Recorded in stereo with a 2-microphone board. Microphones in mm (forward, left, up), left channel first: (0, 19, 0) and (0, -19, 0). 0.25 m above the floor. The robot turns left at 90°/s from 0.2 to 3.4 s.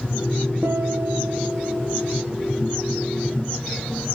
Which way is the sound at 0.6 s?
100° right.